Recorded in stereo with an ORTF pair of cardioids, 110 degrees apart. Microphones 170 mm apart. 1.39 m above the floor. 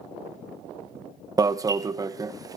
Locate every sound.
1.4 s an alarm: 20° right, 1.1 m